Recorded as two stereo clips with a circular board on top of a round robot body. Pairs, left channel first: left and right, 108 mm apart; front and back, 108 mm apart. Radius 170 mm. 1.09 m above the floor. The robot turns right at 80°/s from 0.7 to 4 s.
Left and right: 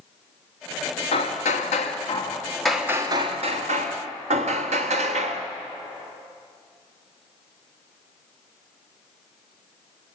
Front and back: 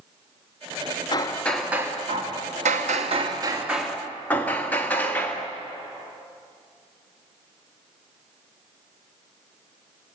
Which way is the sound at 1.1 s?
55° left.